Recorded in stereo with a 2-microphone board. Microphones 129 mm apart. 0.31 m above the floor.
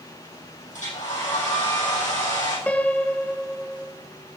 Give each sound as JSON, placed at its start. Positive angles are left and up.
{"t": 0.7, "sound": "a hair dryer", "side_deg": 70, "distance_m": 4.5}
{"t": 2.7, "sound": "a piano", "side_deg": 10, "distance_m": 0.5}